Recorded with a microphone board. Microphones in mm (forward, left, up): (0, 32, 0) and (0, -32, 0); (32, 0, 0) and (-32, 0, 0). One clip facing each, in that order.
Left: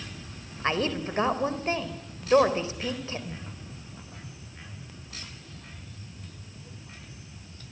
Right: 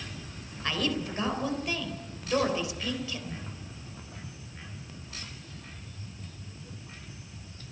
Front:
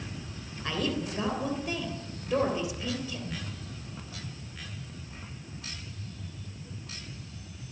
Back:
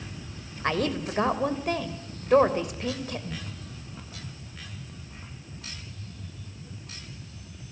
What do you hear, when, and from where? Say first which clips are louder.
0.6 s a woman speaking: left 3 dB, back 4 dB; 145° left, 3 m